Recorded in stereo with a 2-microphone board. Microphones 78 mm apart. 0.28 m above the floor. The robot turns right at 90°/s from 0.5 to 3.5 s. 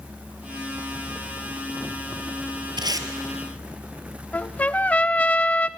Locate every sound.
2.8 s tape being pulled: 70° right (ahead or behind), 1.6 m; by 3.1 s 40° right (ahead or behind), 1.6 m
4.3 s a trumpet: 20° left (ahead or behind), 0.5 m